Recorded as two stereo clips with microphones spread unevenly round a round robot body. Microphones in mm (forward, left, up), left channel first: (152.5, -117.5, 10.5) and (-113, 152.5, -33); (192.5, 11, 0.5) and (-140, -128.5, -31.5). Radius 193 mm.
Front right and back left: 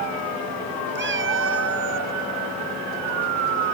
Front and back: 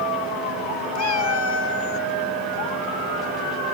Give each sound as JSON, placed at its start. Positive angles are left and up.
{"t": 0.9, "sound": "a cat meowing", "azimuth_deg": 70}